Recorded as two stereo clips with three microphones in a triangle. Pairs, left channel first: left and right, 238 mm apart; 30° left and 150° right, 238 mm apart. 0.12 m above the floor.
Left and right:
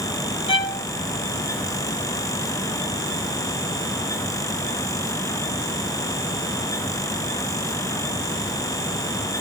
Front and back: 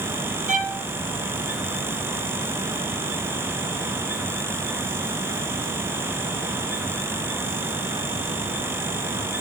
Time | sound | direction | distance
0.5 | a violin | 155° left | 3 m